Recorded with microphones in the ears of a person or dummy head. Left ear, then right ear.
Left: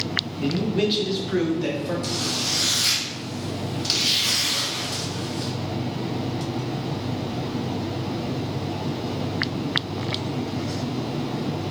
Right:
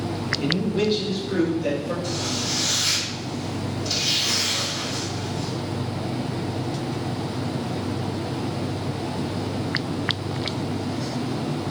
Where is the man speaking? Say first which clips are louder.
Right 1 dB; 55° right (ahead or behind), 0.6 m; by 1.9 s 50° left (ahead or behind), 1.8 m.